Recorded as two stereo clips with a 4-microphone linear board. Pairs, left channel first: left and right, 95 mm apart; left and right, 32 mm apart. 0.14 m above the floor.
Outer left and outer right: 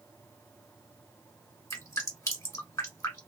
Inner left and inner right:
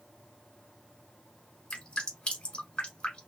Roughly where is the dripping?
Left.